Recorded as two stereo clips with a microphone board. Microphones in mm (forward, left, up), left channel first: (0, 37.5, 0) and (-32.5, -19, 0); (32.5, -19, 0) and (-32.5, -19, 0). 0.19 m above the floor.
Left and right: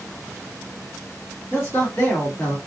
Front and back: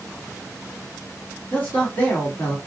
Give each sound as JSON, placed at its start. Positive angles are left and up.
{"t": 1.5, "sound": "a man speaking", "azimuth_deg": 55, "distance_m": 1.6}